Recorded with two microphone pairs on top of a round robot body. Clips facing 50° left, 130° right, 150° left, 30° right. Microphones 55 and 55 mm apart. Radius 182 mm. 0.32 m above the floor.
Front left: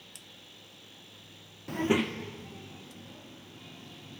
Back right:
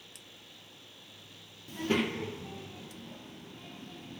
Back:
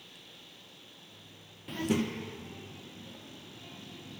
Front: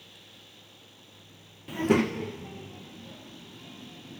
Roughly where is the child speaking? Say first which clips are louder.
Front left 3 dB, front 7 dB; ahead left.